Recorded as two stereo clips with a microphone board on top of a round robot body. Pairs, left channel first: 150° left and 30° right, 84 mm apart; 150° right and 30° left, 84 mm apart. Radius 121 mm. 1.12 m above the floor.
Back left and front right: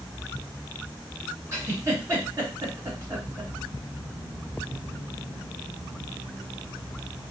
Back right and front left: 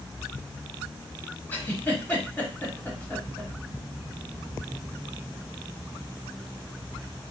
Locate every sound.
1.5 s a giggle: 80° right, 1.4 m